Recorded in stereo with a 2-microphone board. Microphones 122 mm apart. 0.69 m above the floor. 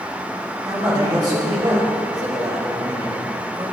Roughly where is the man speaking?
Right.